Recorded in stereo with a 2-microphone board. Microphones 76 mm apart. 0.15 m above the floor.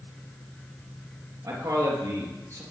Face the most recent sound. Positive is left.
turn(degrees=-40)  # may be behind; listen again after turning